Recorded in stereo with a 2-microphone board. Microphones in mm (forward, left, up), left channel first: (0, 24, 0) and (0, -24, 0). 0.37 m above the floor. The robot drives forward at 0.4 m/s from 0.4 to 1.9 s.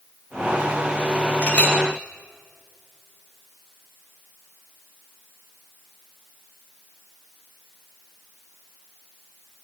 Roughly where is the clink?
Left.